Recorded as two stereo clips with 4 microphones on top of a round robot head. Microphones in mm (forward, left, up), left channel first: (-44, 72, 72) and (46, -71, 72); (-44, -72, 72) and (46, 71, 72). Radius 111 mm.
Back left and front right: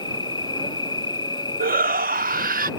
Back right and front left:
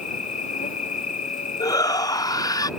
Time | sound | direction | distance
0.0 | an insect | 170° right | ?
1.6 | a shout | 60° right | ?